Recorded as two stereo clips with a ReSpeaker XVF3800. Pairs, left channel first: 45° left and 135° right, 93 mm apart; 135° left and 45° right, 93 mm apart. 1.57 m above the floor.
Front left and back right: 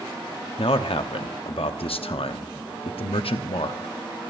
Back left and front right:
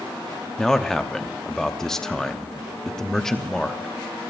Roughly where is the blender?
I don't hear a blender.